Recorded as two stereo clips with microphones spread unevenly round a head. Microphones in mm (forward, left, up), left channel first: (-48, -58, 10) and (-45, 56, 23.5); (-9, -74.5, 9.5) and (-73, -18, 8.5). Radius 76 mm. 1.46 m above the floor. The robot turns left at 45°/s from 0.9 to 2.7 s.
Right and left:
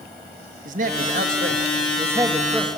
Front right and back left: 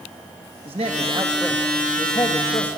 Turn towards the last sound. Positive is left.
turn(degrees=0)